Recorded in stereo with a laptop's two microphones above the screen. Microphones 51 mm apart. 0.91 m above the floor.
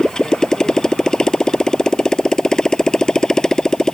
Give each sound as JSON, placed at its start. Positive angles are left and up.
{"t": 0.0, "sound": "a motorcycle", "side_deg": 15}